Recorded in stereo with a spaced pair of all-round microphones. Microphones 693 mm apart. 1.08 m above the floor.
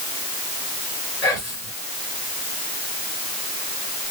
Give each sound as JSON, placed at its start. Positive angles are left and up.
{"t": 1.2, "sound": "whispering", "side_deg": 65, "distance_m": 3.0}